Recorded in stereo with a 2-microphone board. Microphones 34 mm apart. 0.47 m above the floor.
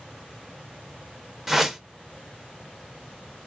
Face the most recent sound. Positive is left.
turn(degrees=-10)  # may be behind; listen again after turning